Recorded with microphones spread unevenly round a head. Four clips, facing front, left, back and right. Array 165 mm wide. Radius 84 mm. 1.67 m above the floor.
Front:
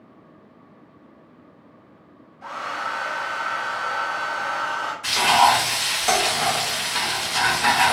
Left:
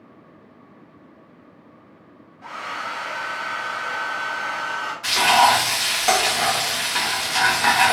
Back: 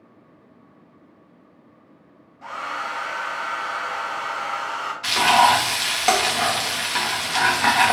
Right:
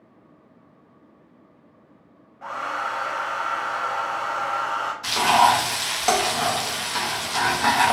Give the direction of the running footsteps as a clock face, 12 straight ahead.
No running footsteps in this recording.